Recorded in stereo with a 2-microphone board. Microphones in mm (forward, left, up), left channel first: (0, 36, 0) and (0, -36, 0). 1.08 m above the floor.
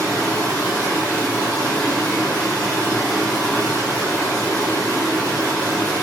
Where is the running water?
20° left (ahead or behind), 2.0 m.